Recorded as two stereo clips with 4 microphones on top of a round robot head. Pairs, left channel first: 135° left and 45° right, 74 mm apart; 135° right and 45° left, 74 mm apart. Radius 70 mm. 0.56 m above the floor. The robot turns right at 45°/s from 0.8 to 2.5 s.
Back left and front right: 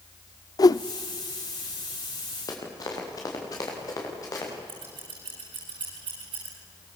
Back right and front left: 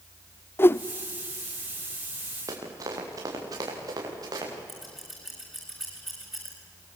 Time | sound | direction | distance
0.6 | a whoosh | 165° left | 0.6 m
2.5 | running footsteps | 90° left | 6.5 m
4.7 | scissors | 45° right | 9 m